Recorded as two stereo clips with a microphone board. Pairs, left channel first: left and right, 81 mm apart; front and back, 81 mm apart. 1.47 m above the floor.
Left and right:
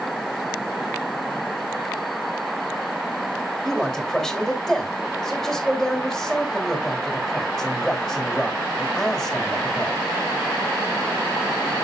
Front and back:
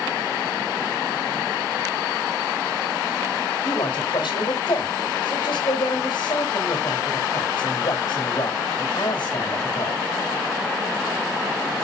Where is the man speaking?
Straight ahead, 3 m.